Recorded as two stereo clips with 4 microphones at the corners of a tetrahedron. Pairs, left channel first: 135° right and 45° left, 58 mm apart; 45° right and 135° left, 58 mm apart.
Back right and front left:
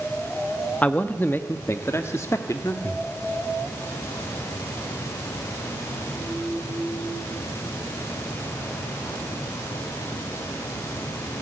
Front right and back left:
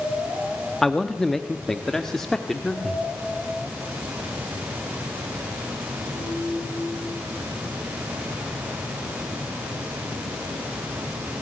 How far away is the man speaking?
About 1.1 m.